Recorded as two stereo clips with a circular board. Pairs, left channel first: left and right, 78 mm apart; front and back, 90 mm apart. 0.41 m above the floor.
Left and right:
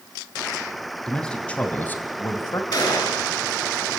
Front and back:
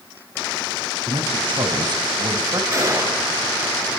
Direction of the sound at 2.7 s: 125° left.